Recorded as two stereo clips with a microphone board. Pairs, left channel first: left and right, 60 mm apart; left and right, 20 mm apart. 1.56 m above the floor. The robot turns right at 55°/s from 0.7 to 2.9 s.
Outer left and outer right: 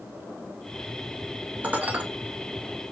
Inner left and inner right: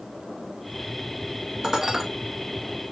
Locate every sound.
1.6 s dishes clattering: 30° right (ahead or behind), 0.6 m; by 2.0 s 25° right (ahead or behind), 0.6 m